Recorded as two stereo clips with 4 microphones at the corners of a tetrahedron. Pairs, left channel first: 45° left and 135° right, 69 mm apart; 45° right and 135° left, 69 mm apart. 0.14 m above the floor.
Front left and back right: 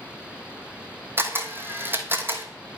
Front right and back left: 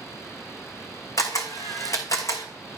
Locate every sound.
1.2 s a camera shutter: 80° right, 1.2 m